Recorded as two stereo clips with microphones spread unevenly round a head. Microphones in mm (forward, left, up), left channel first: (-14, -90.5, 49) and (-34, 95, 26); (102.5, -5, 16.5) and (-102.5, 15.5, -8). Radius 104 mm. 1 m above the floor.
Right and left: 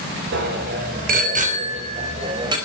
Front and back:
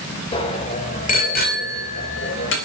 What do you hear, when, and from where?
0.3 s a bicycle bell: 60° left, 3 m; by 2.5 s 25° left, 3.5 m